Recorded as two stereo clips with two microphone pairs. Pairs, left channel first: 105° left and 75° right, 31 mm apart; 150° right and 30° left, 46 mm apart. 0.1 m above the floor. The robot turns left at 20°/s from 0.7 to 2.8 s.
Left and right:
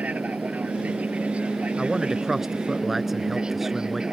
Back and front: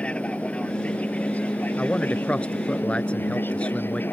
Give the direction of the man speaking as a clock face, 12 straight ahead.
4 o'clock.